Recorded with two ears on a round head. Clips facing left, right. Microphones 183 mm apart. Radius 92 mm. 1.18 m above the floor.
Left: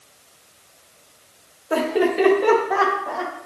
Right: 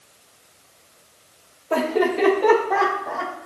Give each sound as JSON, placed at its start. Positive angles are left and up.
{"t": 1.7, "sound": "laughter", "side_deg": 10, "distance_m": 3.0}